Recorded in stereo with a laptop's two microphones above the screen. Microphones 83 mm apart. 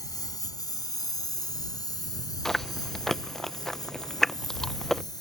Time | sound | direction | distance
0.0 | a lawn mower | 50° left (ahead or behind) | ?
2.5 | chewing | 5° left (ahead or behind) | ?